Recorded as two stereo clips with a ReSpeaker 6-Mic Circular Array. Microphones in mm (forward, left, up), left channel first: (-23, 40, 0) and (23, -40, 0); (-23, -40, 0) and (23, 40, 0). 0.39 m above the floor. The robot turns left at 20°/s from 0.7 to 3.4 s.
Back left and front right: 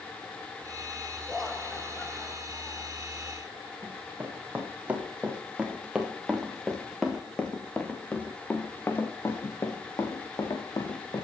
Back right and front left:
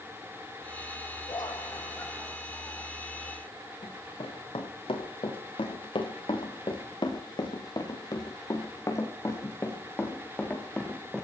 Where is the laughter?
155° right, 1.8 m; by 3.0 s 175° left, 1.8 m.